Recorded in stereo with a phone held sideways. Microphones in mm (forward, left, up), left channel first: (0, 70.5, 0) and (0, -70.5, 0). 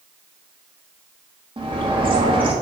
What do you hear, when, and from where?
1.6 s a bird: 35° right (ahead or behind), 1.8 m